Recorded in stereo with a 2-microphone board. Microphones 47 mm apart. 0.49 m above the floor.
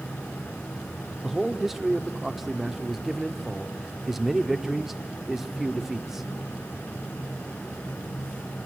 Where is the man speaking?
5° right (ahead or behind), 0.9 m.